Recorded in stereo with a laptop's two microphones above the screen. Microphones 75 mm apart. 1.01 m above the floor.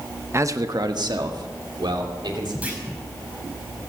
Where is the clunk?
20° right (ahead or behind), 5 m.